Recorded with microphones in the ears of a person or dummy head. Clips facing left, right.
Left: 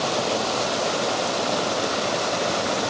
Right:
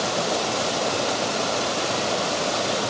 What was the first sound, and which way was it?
Only background noise.